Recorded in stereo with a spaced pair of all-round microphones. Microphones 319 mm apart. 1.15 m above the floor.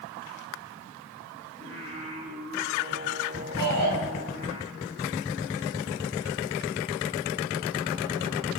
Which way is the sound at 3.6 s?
85° right.